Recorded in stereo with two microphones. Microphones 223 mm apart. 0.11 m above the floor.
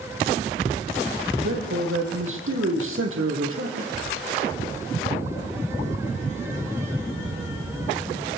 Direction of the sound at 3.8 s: 70° right (ahead or behind).